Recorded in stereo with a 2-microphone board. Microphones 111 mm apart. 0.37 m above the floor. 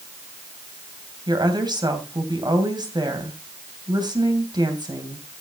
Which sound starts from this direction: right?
A woman speaking, at 1.3 s.